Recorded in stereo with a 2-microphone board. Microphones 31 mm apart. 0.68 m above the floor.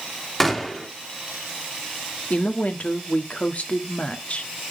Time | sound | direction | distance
0.4 | a gunshot | 10° left (ahead or behind) | 1.5 m
2.3 | a woman speaking | 45° left (ahead or behind) | 1.2 m